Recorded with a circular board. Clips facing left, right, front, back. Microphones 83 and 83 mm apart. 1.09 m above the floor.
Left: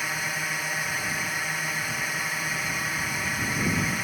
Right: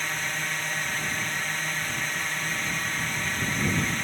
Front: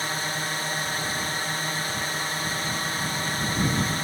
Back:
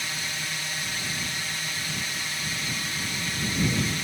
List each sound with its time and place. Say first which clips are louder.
0.0 s a drone: left 1 dB, front 5 dB; 10° left